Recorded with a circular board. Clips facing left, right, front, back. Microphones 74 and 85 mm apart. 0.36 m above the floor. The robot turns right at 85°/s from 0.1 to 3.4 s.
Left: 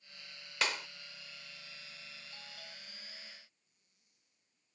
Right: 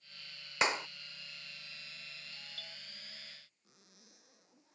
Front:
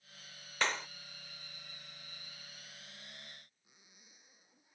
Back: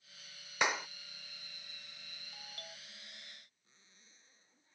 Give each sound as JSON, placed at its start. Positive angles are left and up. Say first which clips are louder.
{"t": 0.6, "sound": "a clap", "louder": "right 4 dB, back 2 dB", "azimuth_deg": -120}
{"t": 2.3, "sound": "a doorbell", "louder": "even, back 4 dB", "azimuth_deg": 145}
{"t": 3.6, "sound": "a zipper", "louder": "right 17 dB, front 2 dB", "azimuth_deg": -75}